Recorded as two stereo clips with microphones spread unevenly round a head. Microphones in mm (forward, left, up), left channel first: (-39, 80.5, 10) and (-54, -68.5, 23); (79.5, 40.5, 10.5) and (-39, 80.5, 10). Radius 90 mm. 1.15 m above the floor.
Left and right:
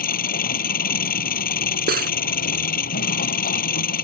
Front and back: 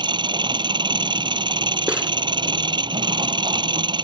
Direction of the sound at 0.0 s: 110° left.